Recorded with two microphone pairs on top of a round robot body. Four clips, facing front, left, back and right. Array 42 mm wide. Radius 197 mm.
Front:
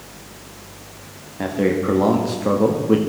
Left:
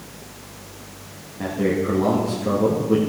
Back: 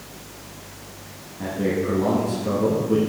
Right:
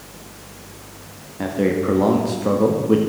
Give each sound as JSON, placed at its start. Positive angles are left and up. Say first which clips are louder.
{"t": 1.4, "sound": "a man speaking", "louder": "right 2 dB, front 4 dB", "azimuth_deg": -35, "distance_m": 1.8}